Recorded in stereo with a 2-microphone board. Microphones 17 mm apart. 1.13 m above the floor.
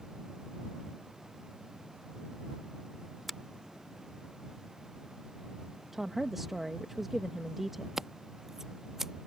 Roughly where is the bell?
No bell in this recording.